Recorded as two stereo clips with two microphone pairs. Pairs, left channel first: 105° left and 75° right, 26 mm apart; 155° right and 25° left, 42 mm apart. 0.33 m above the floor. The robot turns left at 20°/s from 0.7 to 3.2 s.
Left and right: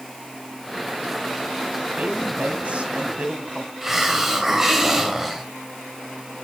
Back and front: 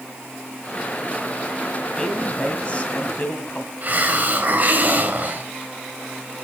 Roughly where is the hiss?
Ahead.